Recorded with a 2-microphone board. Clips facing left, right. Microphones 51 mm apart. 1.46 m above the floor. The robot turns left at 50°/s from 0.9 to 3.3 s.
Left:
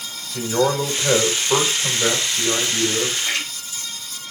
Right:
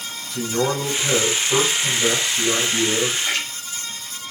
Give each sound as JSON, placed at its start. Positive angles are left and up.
{"t": 0.3, "sound": "a man speaking", "azimuth_deg": 95, "distance_m": 2.5}
{"t": 3.2, "sound": "a splash", "side_deg": 5, "distance_m": 3.5}